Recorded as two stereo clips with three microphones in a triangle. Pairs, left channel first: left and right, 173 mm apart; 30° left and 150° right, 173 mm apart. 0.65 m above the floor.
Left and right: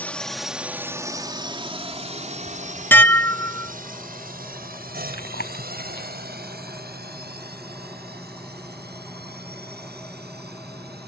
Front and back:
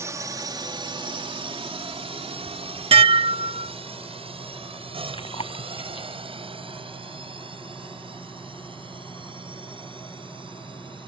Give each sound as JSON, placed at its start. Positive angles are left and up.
{"t": 0.0, "sound": "a drone", "azimuth_deg": 160}
{"t": 2.9, "sound": "dishes clattering", "azimuth_deg": 165}
{"t": 5.1, "sound": "chewing", "azimuth_deg": 85}